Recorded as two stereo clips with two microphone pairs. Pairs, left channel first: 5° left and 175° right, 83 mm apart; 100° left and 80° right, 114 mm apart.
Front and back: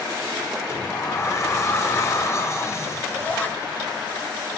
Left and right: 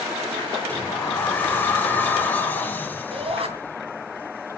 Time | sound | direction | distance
0.7 | a sliding door | 35° left | 1.5 m
3.1 | a shout | 60° right | 3 m